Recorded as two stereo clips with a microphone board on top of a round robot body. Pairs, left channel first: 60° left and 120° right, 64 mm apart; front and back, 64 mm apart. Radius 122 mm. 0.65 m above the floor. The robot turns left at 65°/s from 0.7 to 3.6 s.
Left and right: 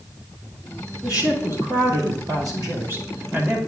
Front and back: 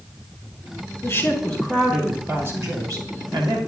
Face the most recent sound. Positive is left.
turn(degrees=155)